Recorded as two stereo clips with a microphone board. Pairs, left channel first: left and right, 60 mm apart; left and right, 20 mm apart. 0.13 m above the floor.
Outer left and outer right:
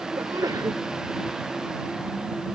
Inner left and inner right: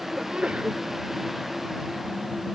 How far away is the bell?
I don't hear a bell.